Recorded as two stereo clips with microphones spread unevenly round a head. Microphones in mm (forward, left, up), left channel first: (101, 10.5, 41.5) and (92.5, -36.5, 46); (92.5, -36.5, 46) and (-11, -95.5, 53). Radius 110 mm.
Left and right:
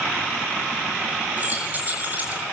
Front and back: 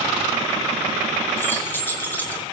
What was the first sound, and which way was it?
Keys jangling, 45° right.